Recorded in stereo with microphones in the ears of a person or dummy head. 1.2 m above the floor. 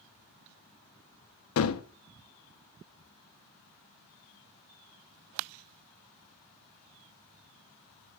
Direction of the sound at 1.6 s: 70° left (ahead or behind).